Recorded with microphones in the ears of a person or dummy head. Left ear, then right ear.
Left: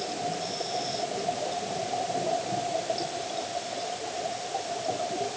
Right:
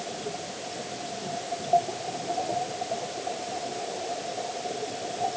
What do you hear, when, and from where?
Only background noise.